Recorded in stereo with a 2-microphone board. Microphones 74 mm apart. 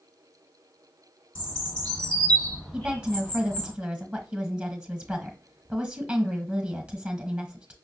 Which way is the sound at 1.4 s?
15° left (ahead or behind).